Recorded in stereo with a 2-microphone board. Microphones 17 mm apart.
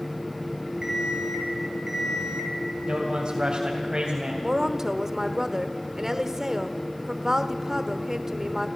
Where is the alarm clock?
35° right (ahead or behind), 6 m.